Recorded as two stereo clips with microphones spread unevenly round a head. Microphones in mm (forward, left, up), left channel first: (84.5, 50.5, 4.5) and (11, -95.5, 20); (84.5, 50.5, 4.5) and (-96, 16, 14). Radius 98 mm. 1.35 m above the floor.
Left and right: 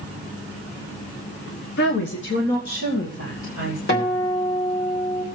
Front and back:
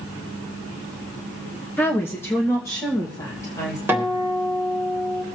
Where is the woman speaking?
90° left, 1.0 m; by 3.8 s 85° left, 2.5 m.